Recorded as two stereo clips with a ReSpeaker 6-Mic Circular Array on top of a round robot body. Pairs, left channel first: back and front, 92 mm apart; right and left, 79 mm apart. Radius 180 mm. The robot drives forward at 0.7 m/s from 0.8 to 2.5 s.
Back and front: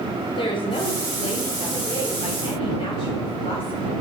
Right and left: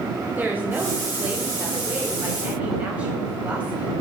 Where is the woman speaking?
160° left, 4 m; by 3.9 s 165° left, 5 m.